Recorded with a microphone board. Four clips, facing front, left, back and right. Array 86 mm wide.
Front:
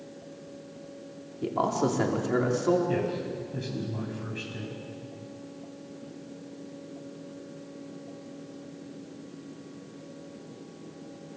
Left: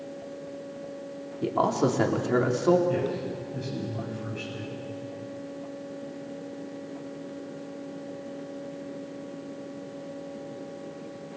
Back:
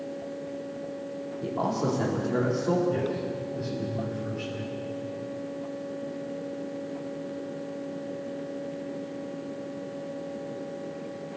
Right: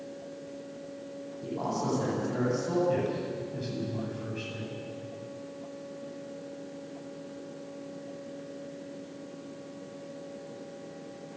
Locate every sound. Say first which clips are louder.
1.4 s a man speaking: left 8 dB, front 2 dB; 70° left, 4 m
2.9 s a man speaking: left 1 dB, back 1 dB; 5° right, 9 m